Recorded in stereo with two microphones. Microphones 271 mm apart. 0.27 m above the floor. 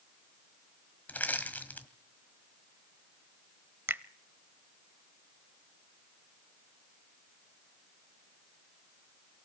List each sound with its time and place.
1.1 s crushing: 5° left (ahead or behind), 1.4 m
3.9 s a finger snap: 10° right (ahead or behind), 0.7 m